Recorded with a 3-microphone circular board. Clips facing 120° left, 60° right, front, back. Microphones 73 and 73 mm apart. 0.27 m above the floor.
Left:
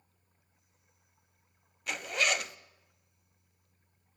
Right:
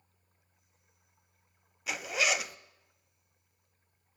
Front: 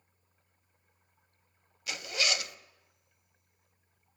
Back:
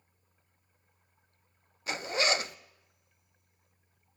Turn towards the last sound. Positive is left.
turn(degrees=-145)